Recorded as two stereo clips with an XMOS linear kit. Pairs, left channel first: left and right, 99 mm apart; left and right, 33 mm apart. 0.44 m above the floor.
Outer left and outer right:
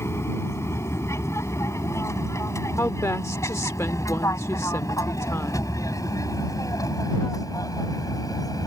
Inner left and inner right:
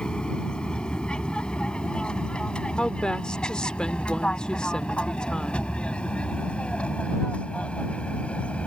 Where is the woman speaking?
30° left (ahead or behind).